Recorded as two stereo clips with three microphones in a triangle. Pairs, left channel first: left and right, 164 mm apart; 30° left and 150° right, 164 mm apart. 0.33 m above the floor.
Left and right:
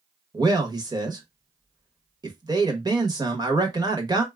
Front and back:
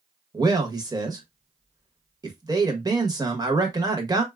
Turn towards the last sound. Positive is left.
turn(degrees=-120)